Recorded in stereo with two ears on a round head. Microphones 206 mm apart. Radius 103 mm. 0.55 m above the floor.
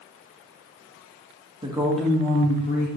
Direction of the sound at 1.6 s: 25° right (ahead or behind).